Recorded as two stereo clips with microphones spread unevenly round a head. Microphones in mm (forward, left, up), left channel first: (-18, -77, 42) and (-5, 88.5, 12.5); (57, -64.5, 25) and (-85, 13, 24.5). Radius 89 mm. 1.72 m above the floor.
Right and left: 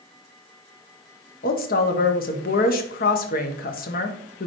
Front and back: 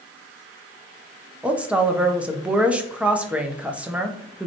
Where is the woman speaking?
125° right, 1.0 m.